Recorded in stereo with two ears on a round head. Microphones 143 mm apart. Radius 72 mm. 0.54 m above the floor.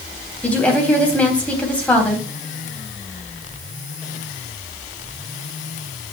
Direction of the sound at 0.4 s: 10° left (ahead or behind).